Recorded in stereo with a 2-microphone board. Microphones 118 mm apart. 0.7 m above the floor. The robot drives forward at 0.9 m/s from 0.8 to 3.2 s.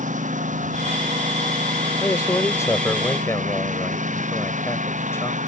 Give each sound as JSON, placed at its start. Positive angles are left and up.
{"t": 0.0, "sound": "a lawn mower", "side_deg": -85}
{"t": 2.0, "sound": "a man speaking", "side_deg": 25}